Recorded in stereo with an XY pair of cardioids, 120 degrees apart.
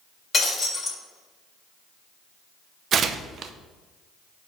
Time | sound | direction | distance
0.3 | breaking glass | 25° left | 3 m
2.9 | tearing paper | 50° right | 0.7 m